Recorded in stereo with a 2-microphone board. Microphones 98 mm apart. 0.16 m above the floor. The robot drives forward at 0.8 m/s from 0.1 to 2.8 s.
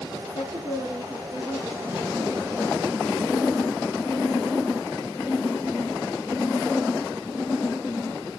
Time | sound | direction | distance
0.3 | a woman speaking | 40° right (ahead or behind) | 2.5 m